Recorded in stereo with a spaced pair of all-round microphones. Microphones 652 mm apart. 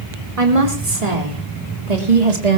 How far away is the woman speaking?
About 4.5 m.